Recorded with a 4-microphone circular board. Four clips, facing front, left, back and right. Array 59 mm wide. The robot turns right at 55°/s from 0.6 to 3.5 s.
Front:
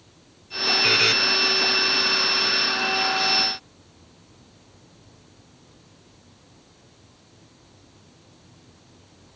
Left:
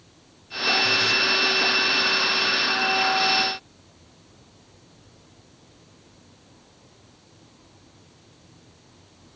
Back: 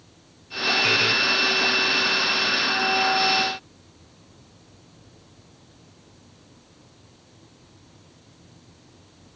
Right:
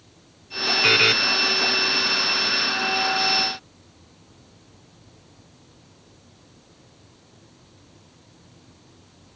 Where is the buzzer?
85° right; by 1.1 s 70° right.